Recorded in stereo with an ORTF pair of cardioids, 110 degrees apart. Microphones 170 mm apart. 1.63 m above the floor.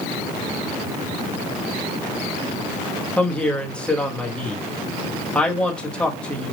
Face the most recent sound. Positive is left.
turn(degrees=5)